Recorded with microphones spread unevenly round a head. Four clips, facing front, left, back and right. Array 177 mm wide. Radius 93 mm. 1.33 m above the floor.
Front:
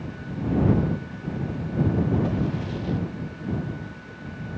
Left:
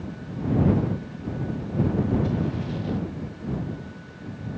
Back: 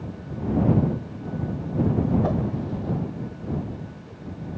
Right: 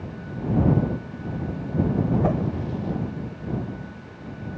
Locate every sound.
2.2 s a whoosh: 120° right